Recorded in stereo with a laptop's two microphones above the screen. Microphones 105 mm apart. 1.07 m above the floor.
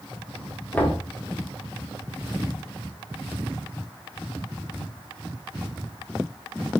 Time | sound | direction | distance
0.7 | knocking | 15° left (ahead or behind) | 1.4 m